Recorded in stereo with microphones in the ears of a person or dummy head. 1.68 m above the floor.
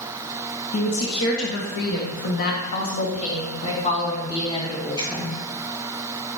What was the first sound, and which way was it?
A woman speaking, 85° left.